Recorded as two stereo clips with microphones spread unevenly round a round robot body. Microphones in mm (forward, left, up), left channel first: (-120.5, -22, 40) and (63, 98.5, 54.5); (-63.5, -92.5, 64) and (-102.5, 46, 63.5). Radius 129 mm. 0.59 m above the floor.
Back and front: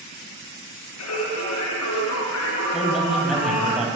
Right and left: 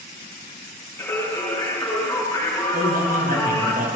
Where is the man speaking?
120° left, 3.5 m.